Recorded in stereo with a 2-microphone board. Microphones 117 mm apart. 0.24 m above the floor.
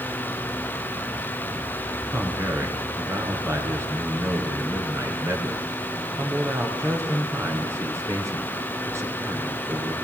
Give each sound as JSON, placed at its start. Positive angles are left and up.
{"t": 2.1, "sound": "a man speaking", "side_deg": -25, "distance_m": 4.0}